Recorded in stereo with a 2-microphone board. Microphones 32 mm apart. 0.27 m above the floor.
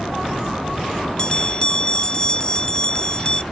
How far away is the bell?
About 0.5 m.